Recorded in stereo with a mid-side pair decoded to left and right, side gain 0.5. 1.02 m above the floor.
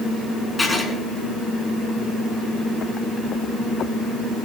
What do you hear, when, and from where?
0.6 s writing: 10° left, 4 m